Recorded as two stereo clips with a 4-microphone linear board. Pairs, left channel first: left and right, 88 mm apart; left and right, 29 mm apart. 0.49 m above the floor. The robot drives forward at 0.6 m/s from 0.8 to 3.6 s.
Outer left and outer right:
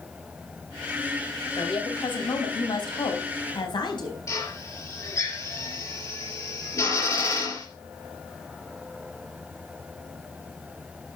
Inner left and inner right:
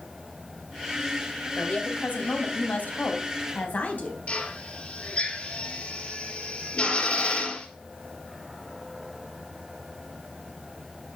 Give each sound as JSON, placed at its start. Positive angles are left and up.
{"t": 1.6, "sound": "a woman speaking", "side_deg": 70, "distance_m": 3.0}
{"t": 4.3, "sound": "a drill", "side_deg": 40, "distance_m": 4.5}